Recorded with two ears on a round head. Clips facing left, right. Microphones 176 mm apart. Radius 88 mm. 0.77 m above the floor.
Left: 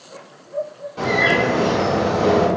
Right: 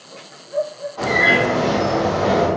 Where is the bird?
30° left (ahead or behind), 1.9 m.